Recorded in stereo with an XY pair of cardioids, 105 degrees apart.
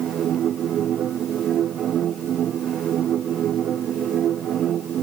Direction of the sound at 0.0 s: 60° right.